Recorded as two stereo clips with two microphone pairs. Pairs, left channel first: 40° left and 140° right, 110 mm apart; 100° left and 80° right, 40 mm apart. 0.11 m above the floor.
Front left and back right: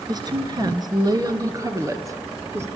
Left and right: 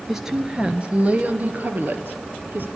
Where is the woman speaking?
155° right, 1.6 m; by 2.7 s 80° right, 2.5 m.